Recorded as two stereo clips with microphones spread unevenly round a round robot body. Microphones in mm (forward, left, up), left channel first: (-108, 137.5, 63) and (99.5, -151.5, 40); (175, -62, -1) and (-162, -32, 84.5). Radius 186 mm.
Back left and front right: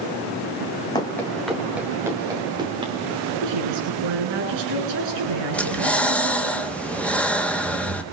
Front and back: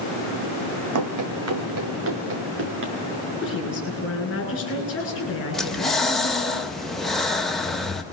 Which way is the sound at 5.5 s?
35° left.